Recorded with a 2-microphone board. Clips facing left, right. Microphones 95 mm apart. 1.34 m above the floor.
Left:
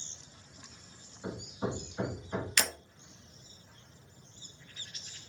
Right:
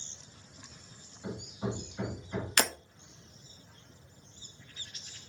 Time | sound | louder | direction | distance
1.2 | hammering | left 1 dB | 40° left (ahead or behind) | 1.3 m
2.6 | breaking glass | right 5 dB | 45° right (ahead or behind) | 0.7 m